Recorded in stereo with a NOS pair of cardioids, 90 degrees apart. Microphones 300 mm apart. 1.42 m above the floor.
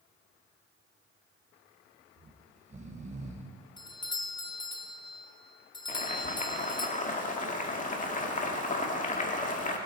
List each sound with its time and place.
2.2 s snoring: 25° right, 1.6 m
3.8 s a doorbell: 15° left, 1.1 m
5.9 s boiling: 30° left, 2.0 m